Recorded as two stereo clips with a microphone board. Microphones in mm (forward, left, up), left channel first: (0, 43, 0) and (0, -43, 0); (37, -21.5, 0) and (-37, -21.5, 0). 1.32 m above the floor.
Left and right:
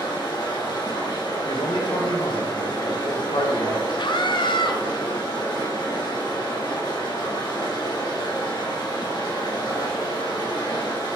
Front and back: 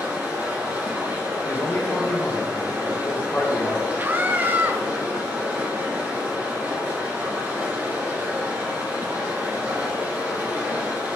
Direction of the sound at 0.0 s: 120° left.